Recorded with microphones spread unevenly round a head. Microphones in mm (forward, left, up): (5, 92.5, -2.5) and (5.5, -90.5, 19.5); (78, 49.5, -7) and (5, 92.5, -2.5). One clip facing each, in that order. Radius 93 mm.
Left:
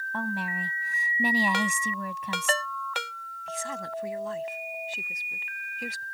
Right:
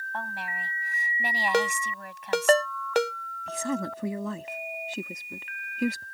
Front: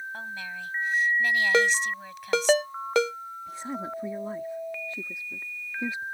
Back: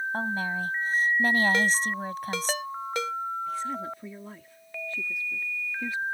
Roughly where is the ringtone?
Ahead right.